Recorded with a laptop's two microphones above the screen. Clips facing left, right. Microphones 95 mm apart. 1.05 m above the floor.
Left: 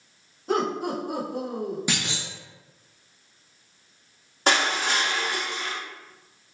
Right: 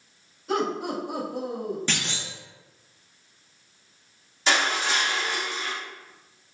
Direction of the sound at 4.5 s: 55° left (ahead or behind).